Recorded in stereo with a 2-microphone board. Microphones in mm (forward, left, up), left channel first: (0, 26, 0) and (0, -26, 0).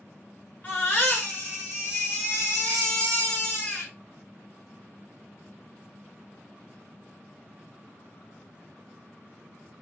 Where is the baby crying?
30° left (ahead or behind), 1.3 m.